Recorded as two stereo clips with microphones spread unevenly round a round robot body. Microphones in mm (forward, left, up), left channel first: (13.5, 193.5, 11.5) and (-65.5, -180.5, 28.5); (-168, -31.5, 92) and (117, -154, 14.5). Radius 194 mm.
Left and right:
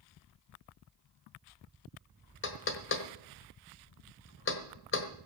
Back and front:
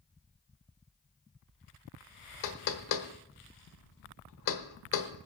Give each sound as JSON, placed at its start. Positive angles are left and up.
{"t": 2.4, "sound": "knocking", "azimuth_deg": 130, "distance_m": 1.3}